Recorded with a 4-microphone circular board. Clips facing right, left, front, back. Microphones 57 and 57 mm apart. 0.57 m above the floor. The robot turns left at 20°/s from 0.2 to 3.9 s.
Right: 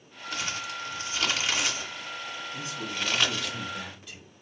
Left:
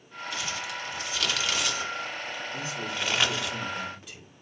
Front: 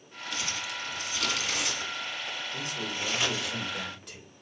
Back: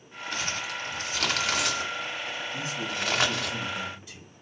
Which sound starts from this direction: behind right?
Crumpling, at 0.3 s.